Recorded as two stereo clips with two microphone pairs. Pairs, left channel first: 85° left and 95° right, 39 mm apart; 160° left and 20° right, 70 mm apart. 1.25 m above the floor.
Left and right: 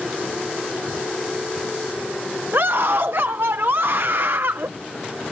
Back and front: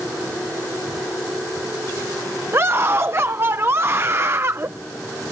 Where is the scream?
75° right.